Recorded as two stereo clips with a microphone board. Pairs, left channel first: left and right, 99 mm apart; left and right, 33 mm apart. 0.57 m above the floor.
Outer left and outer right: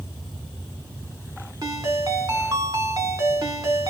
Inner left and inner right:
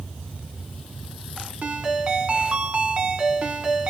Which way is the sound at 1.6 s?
35° right (ahead or behind).